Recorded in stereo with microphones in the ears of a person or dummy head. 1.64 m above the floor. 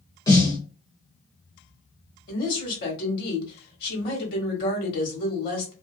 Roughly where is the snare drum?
Centre.